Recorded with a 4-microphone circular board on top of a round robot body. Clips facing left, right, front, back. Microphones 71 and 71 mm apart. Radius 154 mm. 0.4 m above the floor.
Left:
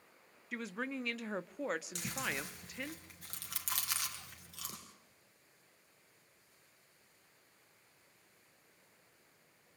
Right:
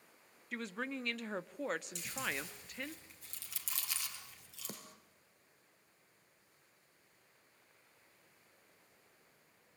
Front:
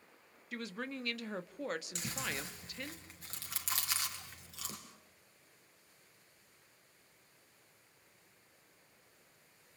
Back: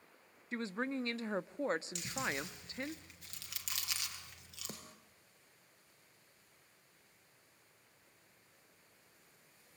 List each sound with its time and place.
0.5 s a woman speaking: 175° left, 1.3 m
1.9 s chewing: 55° left, 4 m
4.7 s a snare drum: 130° right, 2 m